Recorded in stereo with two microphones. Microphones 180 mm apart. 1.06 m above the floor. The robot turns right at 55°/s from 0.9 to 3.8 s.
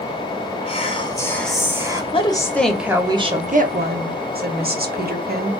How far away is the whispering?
About 1.2 m.